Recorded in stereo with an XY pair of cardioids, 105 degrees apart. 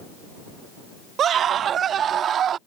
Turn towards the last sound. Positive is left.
turn(degrees=-60)